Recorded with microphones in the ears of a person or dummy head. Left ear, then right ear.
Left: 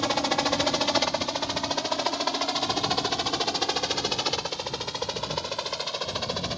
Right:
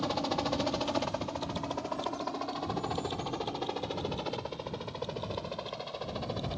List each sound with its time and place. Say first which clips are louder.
0.0 s a helicopter: left 7 dB; 55° left (ahead or behind); by 6.6 s 45° left (ahead or behind)